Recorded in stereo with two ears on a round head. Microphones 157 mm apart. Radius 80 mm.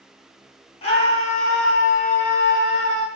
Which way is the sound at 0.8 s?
35° left (ahead or behind).